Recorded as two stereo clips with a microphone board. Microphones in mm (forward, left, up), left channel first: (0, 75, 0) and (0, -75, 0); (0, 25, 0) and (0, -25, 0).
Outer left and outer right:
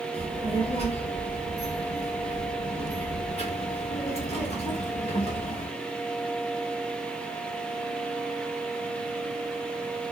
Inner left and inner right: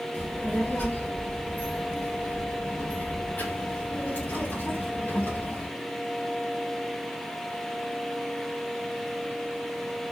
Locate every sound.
0.1 s a child speaking: 45° left (ahead or behind), 3 m